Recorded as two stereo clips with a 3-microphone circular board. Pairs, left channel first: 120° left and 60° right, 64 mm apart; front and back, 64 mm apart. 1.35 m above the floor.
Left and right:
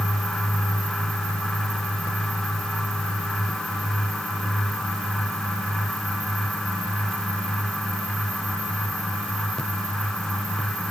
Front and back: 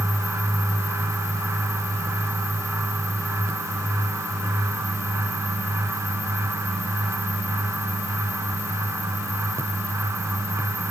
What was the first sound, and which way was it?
Only background noise.